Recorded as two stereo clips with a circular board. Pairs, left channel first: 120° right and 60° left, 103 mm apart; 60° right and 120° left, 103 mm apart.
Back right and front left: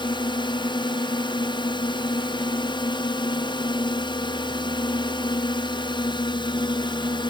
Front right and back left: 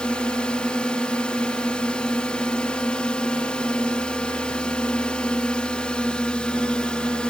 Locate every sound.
0.0 s a drone: 140° right